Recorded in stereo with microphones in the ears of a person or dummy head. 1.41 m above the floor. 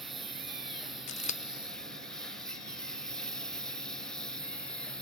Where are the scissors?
40° left (ahead or behind).